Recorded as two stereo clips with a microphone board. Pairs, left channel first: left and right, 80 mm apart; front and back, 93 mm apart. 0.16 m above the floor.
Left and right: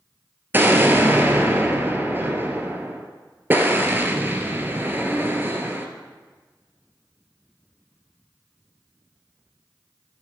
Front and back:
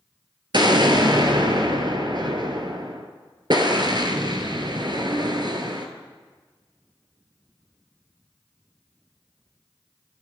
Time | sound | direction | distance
0.5 | an explosion | 150° right | 1.1 m